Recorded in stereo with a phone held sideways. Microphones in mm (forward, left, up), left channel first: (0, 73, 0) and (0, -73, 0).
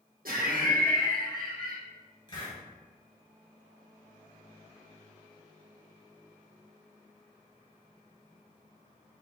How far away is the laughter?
About 1.2 m.